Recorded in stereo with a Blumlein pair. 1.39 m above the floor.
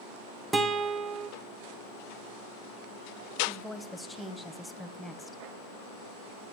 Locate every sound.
0.5 s a guitar: 10° right, 0.9 m
3.5 s a woman speaking: 5° left, 1.0 m